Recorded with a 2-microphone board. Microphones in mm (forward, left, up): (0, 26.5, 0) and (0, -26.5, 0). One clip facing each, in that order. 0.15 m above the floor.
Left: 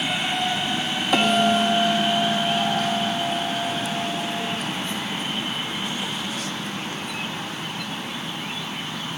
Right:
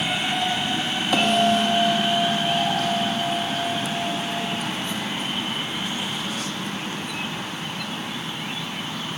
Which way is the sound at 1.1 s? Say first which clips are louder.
Even; centre (ahead or behind).